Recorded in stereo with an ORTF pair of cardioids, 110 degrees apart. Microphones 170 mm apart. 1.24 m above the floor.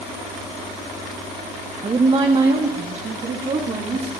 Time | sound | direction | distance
1.8 | a woman speaking | 25° right | 0.8 m